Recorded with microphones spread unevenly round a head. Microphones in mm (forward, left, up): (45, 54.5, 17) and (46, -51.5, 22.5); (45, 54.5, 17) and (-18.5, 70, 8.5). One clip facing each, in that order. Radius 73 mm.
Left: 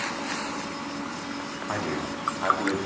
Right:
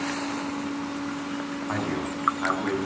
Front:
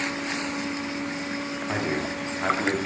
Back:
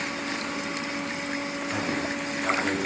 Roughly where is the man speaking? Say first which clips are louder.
Even, front 2 dB; ahead.